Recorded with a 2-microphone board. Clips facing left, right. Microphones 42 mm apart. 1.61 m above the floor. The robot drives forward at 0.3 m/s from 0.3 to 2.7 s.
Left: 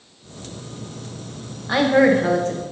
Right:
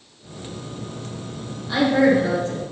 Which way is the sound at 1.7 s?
60° left (ahead or behind).